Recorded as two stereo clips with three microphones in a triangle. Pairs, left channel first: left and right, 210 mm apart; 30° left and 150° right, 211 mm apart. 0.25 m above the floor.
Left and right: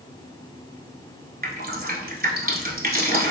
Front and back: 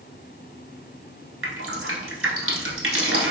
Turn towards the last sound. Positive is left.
turn(degrees=-140)